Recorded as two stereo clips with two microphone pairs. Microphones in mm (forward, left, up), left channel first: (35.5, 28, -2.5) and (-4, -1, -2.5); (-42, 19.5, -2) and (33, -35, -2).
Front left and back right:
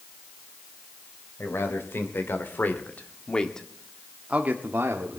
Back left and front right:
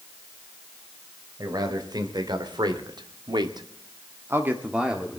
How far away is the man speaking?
About 3 m.